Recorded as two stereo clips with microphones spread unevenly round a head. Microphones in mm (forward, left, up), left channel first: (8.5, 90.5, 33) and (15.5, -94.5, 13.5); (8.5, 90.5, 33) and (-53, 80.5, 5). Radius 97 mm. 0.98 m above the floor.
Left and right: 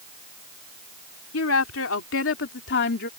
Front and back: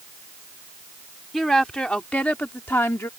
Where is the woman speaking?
95° left; by 3.1 s 55° left.